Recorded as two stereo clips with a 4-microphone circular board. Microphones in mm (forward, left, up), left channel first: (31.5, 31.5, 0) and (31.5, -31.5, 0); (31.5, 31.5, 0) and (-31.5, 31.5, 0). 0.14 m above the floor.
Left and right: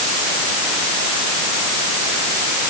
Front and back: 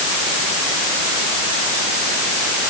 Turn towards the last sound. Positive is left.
No sound to turn to.